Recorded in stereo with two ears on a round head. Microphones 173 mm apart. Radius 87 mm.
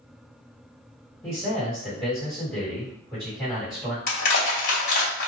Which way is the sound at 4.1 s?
50° left (ahead or behind).